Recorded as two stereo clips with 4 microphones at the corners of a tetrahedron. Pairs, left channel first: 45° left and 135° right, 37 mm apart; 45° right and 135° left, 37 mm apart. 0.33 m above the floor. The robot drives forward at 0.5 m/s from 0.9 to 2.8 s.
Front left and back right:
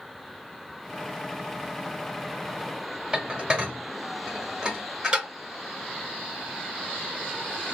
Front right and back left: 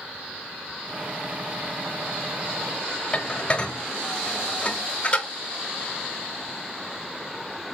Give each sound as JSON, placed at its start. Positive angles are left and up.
{"t": 3.1, "sound": "dishes clattering", "azimuth_deg": -85, "distance_m": 0.9}